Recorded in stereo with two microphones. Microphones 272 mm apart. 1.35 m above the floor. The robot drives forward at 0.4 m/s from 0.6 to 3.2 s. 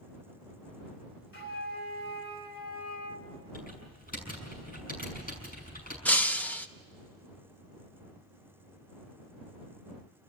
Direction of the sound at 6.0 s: 5° left (ahead or behind).